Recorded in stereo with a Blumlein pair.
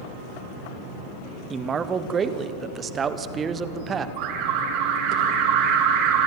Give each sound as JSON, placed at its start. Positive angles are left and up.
{"t": 1.5, "sound": "a man speaking", "azimuth_deg": -20, "distance_m": 1.3}
{"t": 4.2, "sound": "an alarm", "azimuth_deg": -40, "distance_m": 3.0}